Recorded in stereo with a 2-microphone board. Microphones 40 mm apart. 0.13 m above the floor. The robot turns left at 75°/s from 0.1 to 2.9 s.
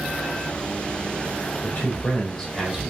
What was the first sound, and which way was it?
A man speaking, 80° left.